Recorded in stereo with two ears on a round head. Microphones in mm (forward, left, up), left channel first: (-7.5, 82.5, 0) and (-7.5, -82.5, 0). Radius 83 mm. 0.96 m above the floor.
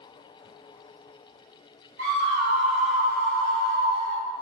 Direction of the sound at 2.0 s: 45° right (ahead or behind).